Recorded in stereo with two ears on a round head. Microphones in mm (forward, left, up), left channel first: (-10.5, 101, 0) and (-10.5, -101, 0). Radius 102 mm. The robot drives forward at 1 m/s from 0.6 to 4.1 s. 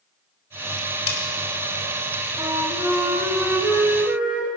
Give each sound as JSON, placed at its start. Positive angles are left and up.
{"t": 1.1, "sound": "cutlery clinking", "side_deg": 25, "distance_m": 1.7}
{"t": 2.4, "sound": "a flute", "side_deg": -15, "distance_m": 1.0}